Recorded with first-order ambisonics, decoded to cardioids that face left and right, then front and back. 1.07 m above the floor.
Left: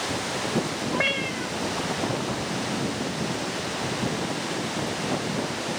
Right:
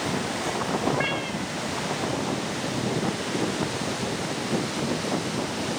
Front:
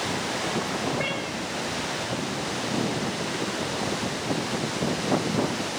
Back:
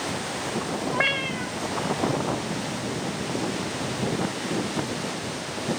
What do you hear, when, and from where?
0.9 s a cat meowing: 165° left, 0.8 m